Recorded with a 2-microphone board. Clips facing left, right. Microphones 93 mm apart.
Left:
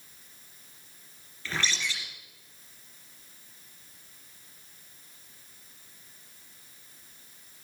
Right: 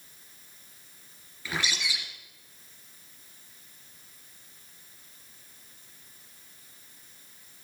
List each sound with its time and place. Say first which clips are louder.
1.4 s a bird: even; 10° right (ahead or behind), 2.5 m